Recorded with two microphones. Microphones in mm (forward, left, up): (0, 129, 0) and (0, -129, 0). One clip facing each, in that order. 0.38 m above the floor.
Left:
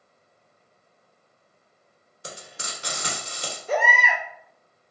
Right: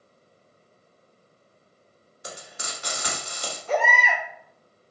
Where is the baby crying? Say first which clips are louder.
Even; 60° right (ahead or behind), 1.8 m.